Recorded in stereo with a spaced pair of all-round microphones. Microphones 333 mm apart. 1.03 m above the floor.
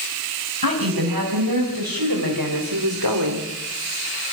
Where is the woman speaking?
85° right, 6 m; by 3.5 s 80° right, 2.5 m.